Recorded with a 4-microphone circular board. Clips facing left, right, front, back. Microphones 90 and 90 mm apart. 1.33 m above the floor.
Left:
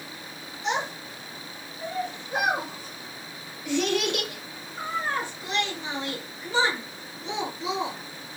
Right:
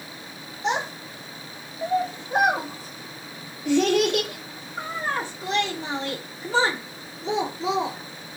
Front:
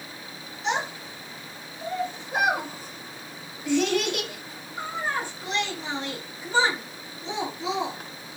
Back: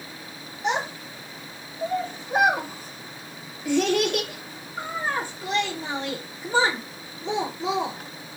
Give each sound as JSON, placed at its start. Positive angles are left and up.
{"t": 0.6, "sound": "a child speaking", "azimuth_deg": -140, "distance_m": 0.6}